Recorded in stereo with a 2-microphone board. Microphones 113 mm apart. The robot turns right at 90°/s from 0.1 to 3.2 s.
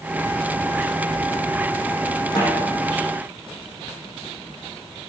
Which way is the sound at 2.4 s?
40° left (ahead or behind).